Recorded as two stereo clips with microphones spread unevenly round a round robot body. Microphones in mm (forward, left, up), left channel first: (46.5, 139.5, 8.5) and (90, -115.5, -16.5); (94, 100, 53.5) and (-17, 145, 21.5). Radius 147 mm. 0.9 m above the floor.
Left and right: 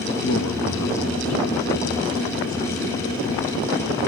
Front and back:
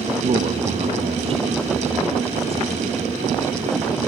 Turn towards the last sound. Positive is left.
turn(degrees=130)